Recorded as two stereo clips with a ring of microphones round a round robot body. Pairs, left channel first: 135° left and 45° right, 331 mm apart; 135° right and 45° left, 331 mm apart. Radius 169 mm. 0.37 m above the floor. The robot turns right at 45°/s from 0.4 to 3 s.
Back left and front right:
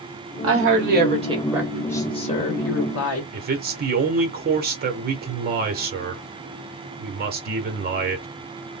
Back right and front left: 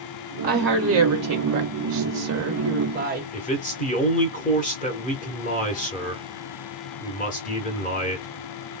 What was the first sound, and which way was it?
A woman speaking, 15° right.